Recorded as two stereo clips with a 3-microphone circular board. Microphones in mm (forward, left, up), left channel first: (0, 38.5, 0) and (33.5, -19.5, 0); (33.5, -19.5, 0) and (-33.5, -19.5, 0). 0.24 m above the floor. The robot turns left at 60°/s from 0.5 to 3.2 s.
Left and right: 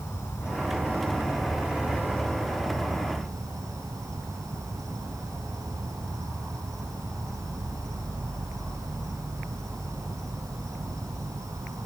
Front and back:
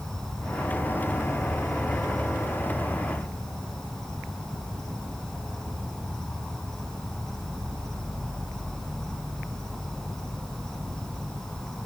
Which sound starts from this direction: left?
An insect, at 0.0 s.